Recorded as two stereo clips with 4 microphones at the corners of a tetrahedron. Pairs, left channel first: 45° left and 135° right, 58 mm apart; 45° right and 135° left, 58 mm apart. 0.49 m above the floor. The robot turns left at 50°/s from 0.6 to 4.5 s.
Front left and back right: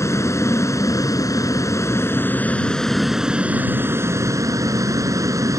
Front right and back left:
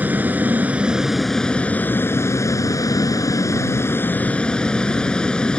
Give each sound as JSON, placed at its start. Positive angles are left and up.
{"t": 0.0, "sound": "a vehicle", "azimuth_deg": 75}